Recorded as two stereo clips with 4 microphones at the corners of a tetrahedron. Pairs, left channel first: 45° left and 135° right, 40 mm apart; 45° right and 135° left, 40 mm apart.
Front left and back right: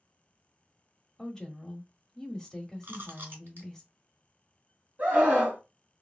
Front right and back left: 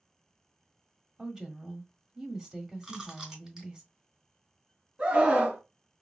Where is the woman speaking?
105° left, 1.2 m.